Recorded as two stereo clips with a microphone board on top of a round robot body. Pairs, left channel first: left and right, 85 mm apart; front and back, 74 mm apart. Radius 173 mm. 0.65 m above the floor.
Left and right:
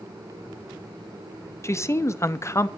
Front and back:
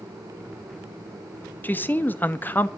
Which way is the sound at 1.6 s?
50° left.